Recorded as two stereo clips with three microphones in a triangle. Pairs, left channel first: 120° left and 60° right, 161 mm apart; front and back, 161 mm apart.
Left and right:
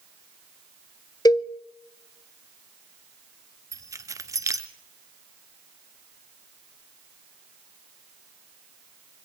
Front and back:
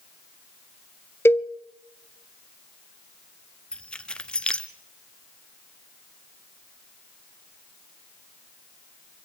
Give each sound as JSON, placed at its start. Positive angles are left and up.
{"t": 1.2, "sound": "a cowbell", "azimuth_deg": 65, "distance_m": 0.6}
{"t": 3.7, "sound": "keys jangling", "azimuth_deg": -70, "distance_m": 0.9}